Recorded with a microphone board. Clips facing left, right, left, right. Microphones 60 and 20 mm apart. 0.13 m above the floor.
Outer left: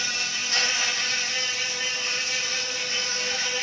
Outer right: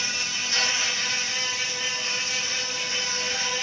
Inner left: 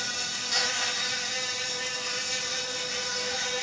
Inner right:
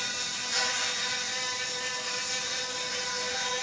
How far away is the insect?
About 1.8 m.